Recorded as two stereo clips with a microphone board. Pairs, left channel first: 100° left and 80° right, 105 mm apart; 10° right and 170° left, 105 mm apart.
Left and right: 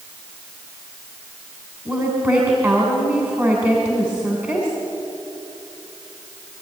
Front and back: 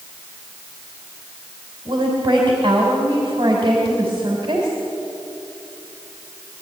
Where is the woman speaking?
145° right, 3 m.